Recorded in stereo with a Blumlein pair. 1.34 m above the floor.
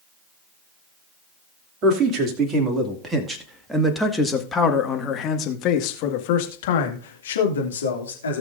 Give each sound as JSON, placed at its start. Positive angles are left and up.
{"t": 1.8, "sound": "a man speaking", "azimuth_deg": -25, "distance_m": 3.0}